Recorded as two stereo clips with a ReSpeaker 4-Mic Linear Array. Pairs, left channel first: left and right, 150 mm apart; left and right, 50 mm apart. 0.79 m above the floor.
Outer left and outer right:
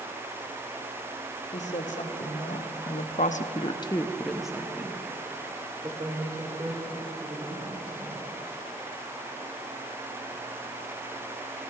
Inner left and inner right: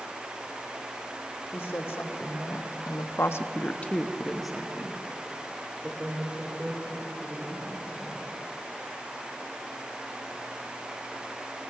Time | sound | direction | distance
1.5 | a woman speaking | 55° left (ahead or behind) | 2 m